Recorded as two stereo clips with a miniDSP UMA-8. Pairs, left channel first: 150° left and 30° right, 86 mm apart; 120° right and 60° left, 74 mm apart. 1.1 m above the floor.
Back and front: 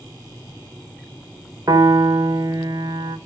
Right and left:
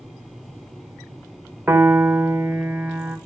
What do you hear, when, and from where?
1.7 s a piano: 5° left, 0.7 m